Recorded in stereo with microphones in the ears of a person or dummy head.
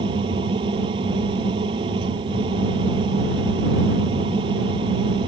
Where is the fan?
20° right (ahead or behind).